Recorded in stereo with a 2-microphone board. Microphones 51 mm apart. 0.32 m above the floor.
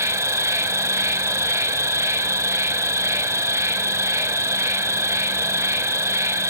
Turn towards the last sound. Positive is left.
turn(degrees=-65)  # may be behind; listen again after turning